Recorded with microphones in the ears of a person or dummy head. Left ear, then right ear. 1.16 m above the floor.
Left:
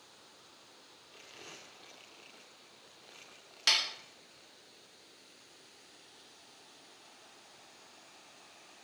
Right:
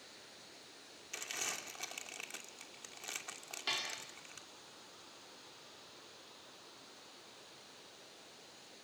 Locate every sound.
1.1 s crumpling: 65° right (ahead or behind), 2.5 m
3.7 s dishes clattering: 55° left (ahead or behind), 1.6 m